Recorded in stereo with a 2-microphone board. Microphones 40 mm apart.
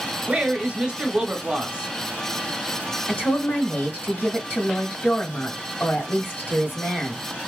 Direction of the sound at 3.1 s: 40° left (ahead or behind).